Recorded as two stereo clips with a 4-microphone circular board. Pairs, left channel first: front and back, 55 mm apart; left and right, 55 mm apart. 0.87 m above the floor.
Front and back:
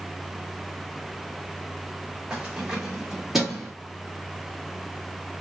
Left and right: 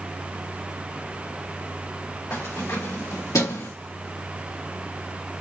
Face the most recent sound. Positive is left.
turn(degrees=90)